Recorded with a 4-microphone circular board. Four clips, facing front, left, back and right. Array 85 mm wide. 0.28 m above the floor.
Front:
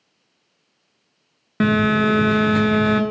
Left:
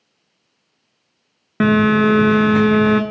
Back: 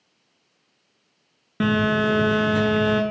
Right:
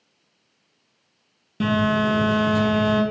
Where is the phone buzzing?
75° left, 0.6 m.